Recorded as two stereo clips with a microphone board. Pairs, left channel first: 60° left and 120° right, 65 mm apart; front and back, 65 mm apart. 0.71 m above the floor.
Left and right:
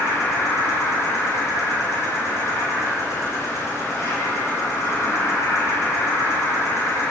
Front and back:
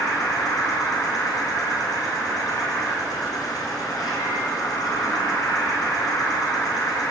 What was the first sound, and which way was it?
An insect, 15° left.